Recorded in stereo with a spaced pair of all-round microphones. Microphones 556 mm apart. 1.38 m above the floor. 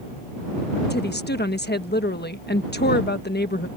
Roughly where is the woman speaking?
Centre.